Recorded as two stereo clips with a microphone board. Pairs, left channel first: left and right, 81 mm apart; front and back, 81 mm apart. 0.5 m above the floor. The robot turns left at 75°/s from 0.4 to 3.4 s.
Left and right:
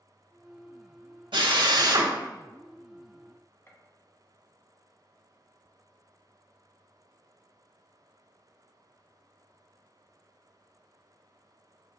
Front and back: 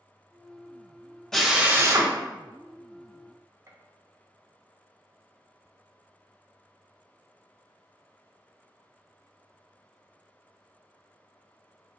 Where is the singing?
I don't hear singing.